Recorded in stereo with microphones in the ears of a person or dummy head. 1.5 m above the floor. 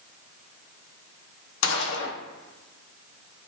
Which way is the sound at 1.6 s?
70° left (ahead or behind).